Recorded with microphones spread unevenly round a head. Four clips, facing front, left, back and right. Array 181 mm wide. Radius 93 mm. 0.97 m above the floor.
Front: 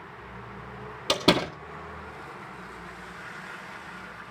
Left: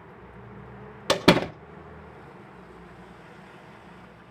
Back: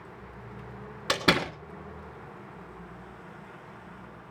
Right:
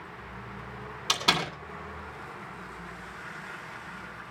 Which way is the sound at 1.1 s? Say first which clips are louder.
Left 9 dB, front 3 dB; 70° left.